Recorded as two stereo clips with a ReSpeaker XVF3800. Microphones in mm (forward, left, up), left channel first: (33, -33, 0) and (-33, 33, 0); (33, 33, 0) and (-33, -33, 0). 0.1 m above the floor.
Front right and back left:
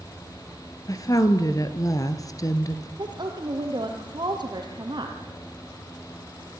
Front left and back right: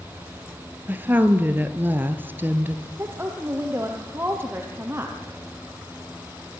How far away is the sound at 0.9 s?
About 1.5 m.